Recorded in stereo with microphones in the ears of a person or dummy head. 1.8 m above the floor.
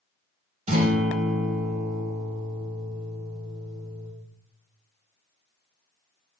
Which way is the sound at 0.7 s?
35° right (ahead or behind).